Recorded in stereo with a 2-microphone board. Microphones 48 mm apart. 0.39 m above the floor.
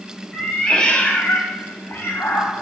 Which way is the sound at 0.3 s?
10° left (ahead or behind).